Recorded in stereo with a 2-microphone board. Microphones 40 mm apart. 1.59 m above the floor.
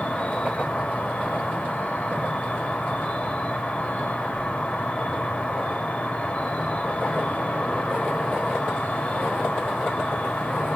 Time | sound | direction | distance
0.0 | an insect | 35° left (ahead or behind) | 1.6 m